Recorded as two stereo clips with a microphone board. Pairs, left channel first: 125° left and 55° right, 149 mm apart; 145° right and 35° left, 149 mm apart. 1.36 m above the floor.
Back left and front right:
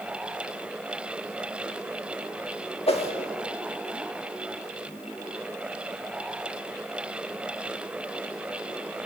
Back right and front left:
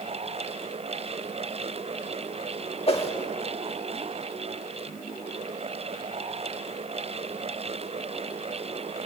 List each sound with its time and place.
2.9 s a whoosh: 170° left, 1.9 m